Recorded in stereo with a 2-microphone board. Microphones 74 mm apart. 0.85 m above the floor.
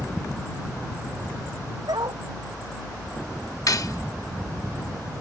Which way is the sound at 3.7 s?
55° left (ahead or behind).